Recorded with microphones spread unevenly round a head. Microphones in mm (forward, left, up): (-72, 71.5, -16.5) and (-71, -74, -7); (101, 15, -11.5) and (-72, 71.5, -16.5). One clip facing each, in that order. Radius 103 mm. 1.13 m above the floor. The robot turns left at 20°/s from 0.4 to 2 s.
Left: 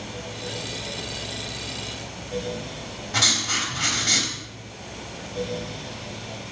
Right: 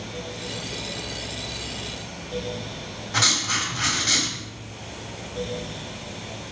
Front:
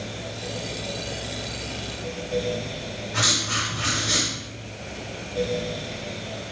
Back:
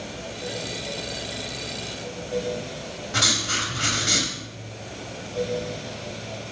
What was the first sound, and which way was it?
Writing, 150° left.